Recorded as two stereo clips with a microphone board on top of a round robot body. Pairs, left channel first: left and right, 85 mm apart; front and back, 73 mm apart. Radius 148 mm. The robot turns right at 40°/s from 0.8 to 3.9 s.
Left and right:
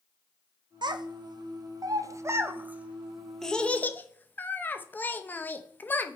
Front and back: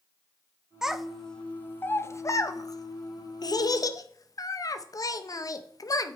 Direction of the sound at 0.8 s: 100° right.